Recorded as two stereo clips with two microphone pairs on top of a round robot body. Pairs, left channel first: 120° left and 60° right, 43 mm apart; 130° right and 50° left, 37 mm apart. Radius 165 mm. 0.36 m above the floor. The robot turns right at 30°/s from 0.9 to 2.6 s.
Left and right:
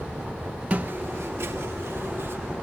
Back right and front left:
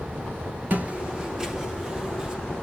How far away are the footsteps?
About 0.6 m.